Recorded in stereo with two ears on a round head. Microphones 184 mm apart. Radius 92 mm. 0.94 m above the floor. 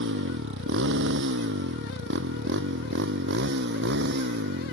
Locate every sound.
0.0 s a motorcycle: 60° right (ahead or behind); by 4.7 s 55° right (ahead or behind)